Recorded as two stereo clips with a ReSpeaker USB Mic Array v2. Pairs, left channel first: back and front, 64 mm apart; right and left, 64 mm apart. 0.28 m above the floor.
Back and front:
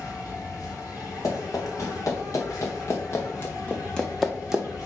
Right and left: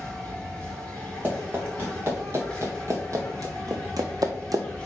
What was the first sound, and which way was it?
An insect, 160° right.